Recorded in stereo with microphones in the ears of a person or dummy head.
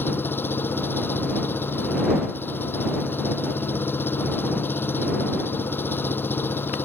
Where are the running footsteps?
No running footsteps in this recording.